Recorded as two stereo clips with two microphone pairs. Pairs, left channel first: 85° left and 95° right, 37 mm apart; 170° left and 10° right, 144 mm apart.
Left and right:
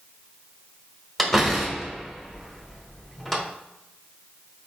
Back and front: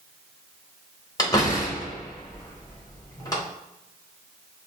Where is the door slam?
165° left, 0.9 m.